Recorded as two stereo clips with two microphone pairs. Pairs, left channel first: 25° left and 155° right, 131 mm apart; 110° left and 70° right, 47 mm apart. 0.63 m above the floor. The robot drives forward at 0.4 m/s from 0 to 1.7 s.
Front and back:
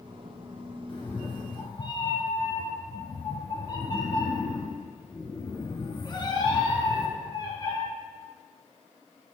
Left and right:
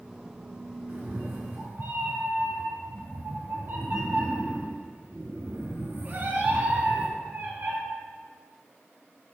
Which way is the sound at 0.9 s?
25° right.